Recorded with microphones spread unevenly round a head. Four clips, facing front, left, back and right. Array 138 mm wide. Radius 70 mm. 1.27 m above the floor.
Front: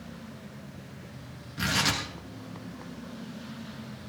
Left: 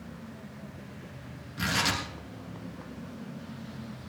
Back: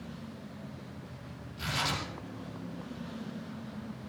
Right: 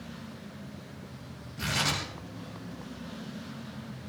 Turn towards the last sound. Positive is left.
turn(degrees=20)